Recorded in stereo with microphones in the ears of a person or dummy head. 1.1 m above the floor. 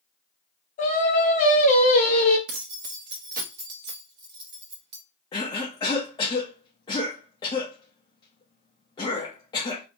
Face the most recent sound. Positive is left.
turn(degrees=20)  # may be behind; listen again after turning